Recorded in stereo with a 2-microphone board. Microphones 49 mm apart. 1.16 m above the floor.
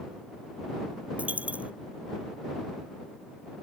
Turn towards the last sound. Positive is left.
turn(degrees=-25)  # may be behind; listen again after turning